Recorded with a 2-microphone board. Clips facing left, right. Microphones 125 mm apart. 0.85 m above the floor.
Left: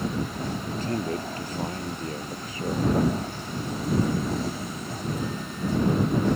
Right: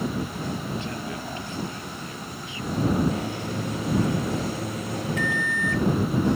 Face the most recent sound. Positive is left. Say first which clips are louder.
# right 3 dB
turn(degrees=-80)